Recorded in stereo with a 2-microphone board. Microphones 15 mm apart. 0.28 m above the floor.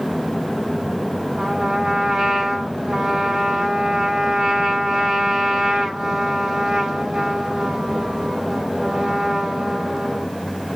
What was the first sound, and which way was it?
A trumpet, 70° right (ahead or behind).